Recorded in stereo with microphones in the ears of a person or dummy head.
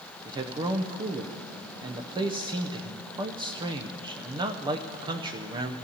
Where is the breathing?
I don't hear breathing.